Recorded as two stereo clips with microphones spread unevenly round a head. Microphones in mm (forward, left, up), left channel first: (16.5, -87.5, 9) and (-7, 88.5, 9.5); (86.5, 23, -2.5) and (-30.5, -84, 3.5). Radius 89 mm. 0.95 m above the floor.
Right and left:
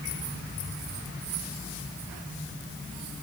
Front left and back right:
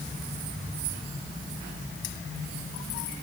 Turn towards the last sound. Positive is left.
No sound to turn to.